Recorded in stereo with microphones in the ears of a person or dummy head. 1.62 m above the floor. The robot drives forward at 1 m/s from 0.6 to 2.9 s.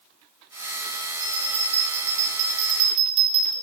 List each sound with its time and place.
1.2 s a bell: 35° right (ahead or behind), 4 m; by 3.5 s 55° right (ahead or behind), 3 m